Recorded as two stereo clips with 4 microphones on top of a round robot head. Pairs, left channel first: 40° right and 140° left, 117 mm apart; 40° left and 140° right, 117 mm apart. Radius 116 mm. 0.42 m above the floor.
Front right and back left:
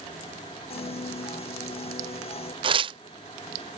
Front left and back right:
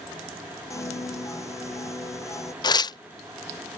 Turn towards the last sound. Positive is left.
turn(degrees=95)